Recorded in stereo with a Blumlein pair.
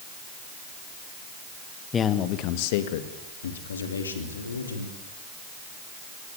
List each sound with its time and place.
1.9 s a man speaking: 20° left, 1.6 m; by 4.9 s 75° left, 4.5 m